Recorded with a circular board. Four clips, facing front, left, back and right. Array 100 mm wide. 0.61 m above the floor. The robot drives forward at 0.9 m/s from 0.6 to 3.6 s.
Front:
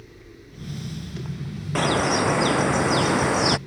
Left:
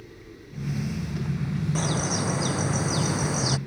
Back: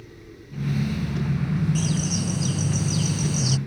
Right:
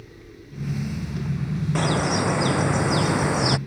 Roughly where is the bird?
Ahead right.